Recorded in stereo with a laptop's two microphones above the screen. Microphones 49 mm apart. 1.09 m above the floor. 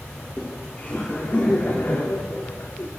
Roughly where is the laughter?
Centre.